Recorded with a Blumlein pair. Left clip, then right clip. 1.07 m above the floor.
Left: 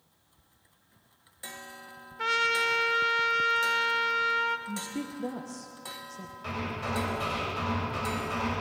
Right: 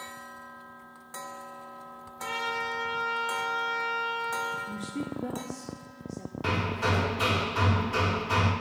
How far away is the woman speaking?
About 1.1 m.